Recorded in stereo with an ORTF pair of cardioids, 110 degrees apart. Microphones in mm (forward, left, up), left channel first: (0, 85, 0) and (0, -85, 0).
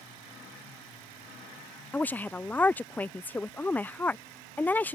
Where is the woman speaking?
10° left.